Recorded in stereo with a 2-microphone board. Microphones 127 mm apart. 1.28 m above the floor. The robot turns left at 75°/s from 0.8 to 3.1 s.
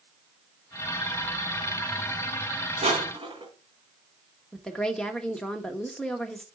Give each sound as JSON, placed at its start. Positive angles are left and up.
{"t": 2.8, "sound": "crushing", "side_deg": -60, "distance_m": 3.5}
{"t": 4.5, "sound": "a woman speaking", "side_deg": 5, "distance_m": 1.2}